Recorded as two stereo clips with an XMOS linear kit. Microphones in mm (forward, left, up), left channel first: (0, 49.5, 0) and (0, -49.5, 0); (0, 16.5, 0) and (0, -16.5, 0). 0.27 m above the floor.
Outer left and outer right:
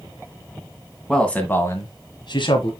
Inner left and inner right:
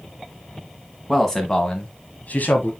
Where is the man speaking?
10° left (ahead or behind), 1.9 m; by 2.7 s 60° left (ahead or behind), 1.8 m.